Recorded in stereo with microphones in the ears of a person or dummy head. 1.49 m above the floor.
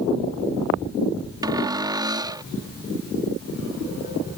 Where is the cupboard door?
25° right (ahead or behind).